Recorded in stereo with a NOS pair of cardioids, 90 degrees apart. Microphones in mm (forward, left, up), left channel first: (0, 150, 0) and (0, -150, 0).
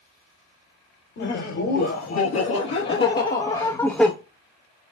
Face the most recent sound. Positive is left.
turn(degrees=0)